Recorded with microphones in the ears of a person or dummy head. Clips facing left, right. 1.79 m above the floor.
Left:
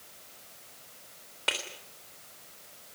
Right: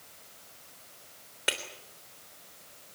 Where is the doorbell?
No doorbell in this recording.